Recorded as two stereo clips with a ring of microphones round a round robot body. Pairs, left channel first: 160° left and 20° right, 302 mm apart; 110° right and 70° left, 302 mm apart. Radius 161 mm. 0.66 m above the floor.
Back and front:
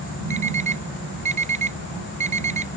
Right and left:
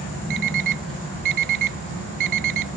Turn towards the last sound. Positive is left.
turn(degrees=45)